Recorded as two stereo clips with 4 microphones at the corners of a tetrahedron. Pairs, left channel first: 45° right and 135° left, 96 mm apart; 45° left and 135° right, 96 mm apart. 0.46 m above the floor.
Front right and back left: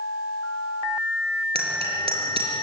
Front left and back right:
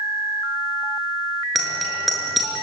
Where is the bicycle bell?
135° left, 5.5 m.